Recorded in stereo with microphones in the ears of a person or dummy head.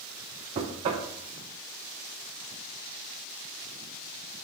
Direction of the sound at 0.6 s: 25° right (ahead or behind).